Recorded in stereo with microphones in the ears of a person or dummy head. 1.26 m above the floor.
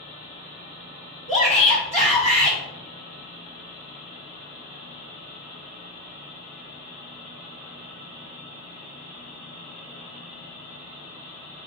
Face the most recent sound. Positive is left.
turn(degrees=35)  # may be behind; listen again after turning